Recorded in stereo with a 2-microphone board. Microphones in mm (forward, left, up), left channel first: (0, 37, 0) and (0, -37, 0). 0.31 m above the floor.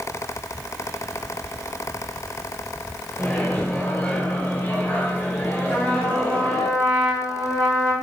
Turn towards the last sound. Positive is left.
turn(degrees=20)  # may be behind; listen again after turning